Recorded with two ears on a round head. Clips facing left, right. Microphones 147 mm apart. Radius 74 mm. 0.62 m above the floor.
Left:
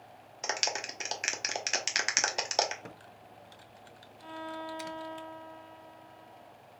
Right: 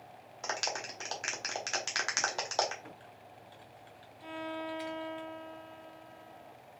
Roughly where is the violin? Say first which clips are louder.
Right 1 dB; centre.